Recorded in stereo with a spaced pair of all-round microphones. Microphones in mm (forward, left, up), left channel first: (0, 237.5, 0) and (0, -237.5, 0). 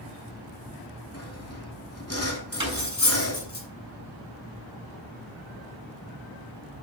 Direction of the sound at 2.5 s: 10° right (ahead or behind).